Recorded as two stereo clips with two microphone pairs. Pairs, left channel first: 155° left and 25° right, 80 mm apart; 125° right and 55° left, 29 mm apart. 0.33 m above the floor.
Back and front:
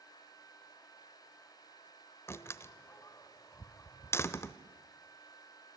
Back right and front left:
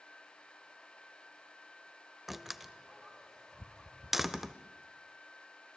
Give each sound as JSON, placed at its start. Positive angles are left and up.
{"t": 2.3, "sound": "a door slam", "azimuth_deg": 130, "distance_m": 0.8}